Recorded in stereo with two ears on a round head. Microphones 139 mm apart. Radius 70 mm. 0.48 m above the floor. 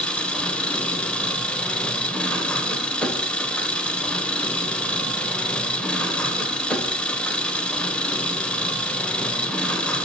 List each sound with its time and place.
0.0 s an engine running: 10° left (ahead or behind), 1.0 m